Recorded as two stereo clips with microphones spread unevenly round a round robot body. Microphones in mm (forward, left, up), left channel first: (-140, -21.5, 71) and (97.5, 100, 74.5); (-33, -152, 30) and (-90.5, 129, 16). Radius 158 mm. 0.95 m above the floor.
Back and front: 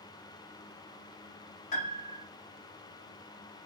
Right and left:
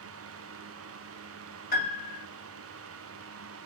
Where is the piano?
130° right, 0.8 m.